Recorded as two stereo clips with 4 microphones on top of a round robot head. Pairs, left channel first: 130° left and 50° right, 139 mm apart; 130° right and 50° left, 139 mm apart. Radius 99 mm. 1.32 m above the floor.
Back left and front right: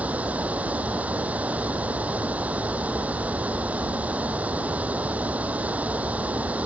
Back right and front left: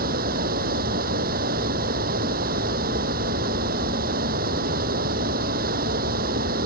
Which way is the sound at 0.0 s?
30° left.